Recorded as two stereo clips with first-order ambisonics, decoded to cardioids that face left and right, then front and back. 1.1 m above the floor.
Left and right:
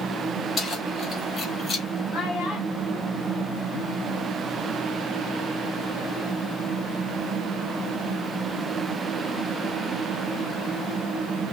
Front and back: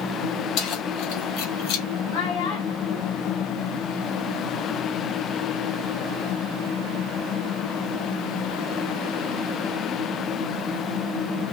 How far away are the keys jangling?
About 3.5 m.